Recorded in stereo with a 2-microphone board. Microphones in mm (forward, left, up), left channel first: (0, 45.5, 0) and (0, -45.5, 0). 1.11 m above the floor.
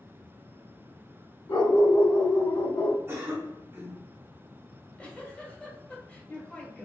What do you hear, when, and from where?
1.5 s a dog barking: 60° left (ahead or behind), 1.1 m; by 3.0 s 50° left (ahead or behind), 1.0 m
3.1 s a cough: 30° right (ahead or behind), 1.4 m
4.7 s a giggle: 15° left (ahead or behind), 0.9 m